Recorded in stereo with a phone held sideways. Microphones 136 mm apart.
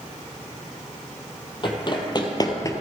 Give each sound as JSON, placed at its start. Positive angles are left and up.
{"t": 1.6, "sound": "running footsteps", "side_deg": 40, "distance_m": 2.0}